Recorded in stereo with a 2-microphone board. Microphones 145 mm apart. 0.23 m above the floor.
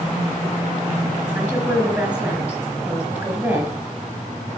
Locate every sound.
1.4 s a woman speaking: 10° right (ahead or behind), 3.5 m